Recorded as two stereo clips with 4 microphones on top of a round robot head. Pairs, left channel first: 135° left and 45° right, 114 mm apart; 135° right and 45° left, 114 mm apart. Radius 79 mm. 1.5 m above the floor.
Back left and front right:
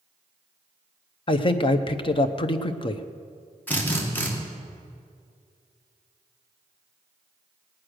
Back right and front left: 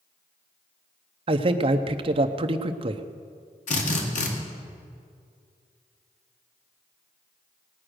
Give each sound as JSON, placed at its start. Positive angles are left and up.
{"t": 1.3, "sound": "a man speaking", "azimuth_deg": 90, "distance_m": 0.7}
{"t": 3.7, "sound": "a drill", "azimuth_deg": -145, "distance_m": 2.0}